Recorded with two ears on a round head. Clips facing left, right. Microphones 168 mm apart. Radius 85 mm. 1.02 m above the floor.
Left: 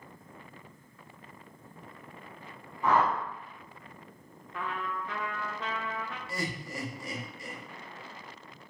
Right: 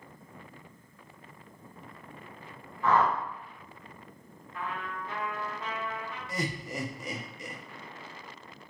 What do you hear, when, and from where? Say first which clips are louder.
2.8 s a whoosh: right 1 dB; 10° left (ahead or behind), 0.6 m
4.5 s a trumpet: left 2 dB; 55° left (ahead or behind), 0.5 m
6.3 s laughter: right 3 dB; 15° right (ahead or behind), 0.6 m